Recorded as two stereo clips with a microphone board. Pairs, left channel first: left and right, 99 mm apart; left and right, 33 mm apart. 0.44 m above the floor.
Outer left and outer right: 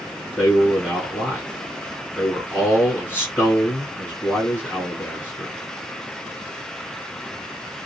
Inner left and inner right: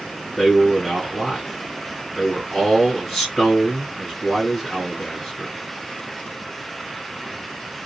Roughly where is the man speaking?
Centre.